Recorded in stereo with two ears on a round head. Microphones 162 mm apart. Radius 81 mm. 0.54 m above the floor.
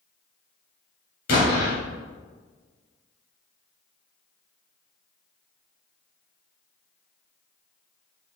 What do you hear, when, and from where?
1.3 s an explosion: 55° left (ahead or behind), 3 m